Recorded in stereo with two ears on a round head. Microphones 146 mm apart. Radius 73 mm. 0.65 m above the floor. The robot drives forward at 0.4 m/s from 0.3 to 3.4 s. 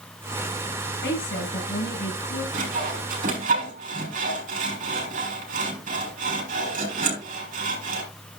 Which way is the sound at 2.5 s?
60° right (ahead or behind).